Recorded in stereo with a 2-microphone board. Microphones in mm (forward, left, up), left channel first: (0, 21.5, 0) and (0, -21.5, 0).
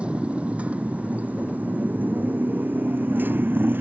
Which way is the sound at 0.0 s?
25° right (ahead or behind).